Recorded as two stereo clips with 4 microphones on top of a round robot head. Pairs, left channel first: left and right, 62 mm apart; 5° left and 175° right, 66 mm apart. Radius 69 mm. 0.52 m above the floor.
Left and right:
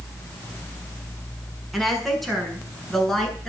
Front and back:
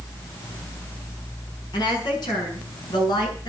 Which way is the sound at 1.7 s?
Straight ahead.